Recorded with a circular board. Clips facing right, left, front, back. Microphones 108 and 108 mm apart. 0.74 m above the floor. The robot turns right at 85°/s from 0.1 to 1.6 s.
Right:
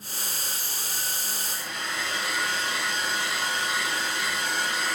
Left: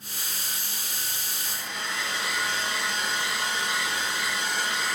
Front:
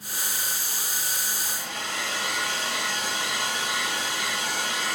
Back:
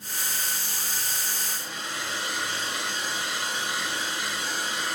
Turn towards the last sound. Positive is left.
turn(degrees=0)